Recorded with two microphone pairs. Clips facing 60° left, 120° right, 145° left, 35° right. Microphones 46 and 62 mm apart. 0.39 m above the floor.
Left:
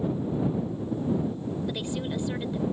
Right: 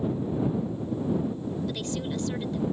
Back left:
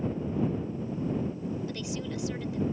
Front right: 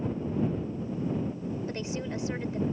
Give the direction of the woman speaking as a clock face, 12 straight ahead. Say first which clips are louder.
Left 1 dB, front right 1 dB; 12 o'clock.